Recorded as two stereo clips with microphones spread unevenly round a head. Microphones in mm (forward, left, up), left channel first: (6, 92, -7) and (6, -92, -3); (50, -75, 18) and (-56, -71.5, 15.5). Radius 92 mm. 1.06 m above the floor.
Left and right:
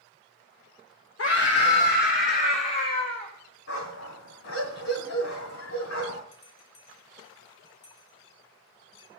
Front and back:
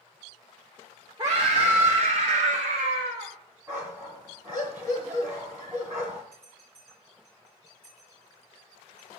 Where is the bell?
115° left, 5 m.